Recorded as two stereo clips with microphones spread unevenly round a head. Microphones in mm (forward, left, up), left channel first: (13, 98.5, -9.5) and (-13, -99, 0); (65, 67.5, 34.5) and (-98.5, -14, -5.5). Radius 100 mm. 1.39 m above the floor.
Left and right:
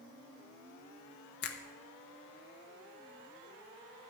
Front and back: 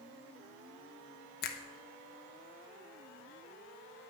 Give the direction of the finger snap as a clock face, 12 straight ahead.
10 o'clock.